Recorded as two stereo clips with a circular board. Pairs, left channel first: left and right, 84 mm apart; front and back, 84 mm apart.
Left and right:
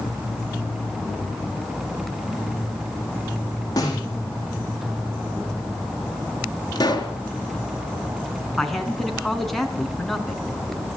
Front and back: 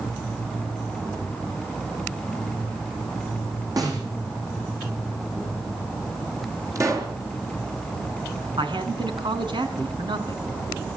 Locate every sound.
3.8 s a snare drum: 135° left, 7 m
6.8 s a pop: 130° left, 4 m
8.6 s a man speaking: straight behind, 3.5 m